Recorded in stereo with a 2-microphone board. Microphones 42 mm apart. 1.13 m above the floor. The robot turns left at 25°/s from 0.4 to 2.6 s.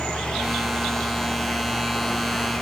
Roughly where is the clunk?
No clunk in this recording.